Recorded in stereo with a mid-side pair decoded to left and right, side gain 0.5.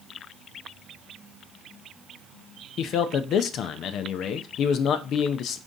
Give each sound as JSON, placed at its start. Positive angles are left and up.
{"t": 2.8, "sound": "a man speaking", "azimuth_deg": 65, "distance_m": 0.5}